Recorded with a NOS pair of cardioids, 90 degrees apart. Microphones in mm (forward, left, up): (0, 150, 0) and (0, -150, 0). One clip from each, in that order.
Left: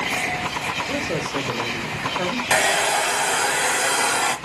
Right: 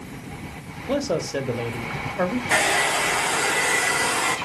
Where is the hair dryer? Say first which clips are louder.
Left 2 dB; 60° left, 2.5 m.